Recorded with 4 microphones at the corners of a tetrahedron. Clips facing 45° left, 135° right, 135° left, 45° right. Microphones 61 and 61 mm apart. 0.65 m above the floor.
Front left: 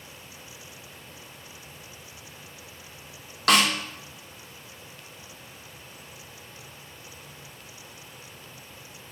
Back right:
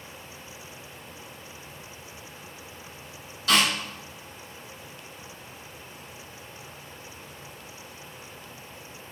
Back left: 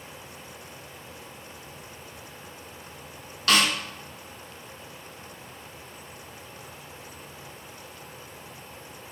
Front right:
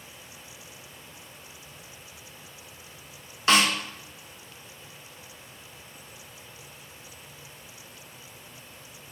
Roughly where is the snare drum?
Ahead.